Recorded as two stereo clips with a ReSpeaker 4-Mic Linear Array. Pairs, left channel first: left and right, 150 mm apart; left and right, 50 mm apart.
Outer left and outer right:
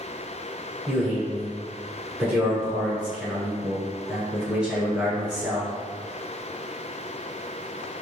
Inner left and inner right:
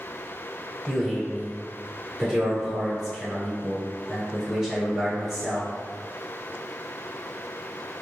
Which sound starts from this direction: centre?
A man speaking, at 0.9 s.